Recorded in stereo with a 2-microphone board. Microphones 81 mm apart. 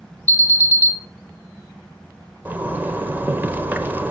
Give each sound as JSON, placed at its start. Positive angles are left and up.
{"t": 0.3, "sound": "an alarm", "side_deg": 20, "distance_m": 2.5}
{"t": 2.5, "sound": "a zipper", "side_deg": -20, "distance_m": 1.1}